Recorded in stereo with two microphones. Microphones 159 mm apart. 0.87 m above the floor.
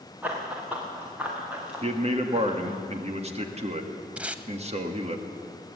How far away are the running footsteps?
About 5 m.